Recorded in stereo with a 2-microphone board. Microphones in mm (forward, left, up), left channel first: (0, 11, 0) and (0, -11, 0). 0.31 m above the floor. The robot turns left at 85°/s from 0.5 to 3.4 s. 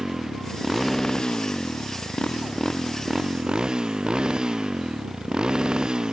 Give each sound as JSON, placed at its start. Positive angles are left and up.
{"t": 0.0, "sound": "a motorcycle", "side_deg": -25}